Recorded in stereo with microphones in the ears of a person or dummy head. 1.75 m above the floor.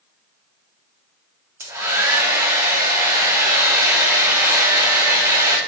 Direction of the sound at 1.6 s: 15° right (ahead or behind).